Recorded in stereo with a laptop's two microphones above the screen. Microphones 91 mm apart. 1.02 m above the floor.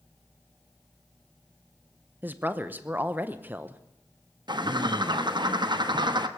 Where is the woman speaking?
20° right (ahead or behind), 0.7 m.